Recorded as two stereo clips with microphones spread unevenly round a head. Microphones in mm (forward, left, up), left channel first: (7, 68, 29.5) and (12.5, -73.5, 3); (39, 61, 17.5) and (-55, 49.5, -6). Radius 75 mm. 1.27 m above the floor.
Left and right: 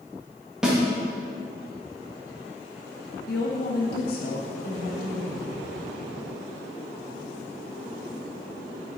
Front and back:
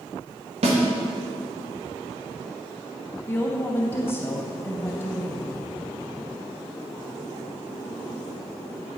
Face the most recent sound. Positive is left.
turn(degrees=75)